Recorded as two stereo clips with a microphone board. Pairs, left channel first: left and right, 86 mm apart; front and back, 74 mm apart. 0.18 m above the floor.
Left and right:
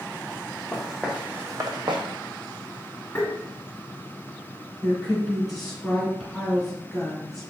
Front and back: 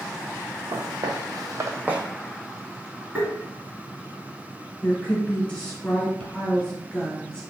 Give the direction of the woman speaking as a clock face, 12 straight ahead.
12 o'clock.